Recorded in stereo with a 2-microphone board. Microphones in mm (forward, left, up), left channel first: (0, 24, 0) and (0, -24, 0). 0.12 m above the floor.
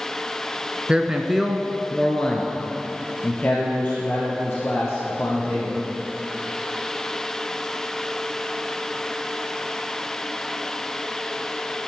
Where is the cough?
No cough in this recording.